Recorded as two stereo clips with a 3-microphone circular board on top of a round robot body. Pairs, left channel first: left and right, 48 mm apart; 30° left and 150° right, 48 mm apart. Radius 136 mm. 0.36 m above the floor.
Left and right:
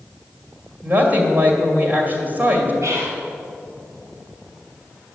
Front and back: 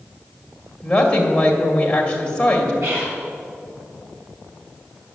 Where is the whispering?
115° right, 4.5 m.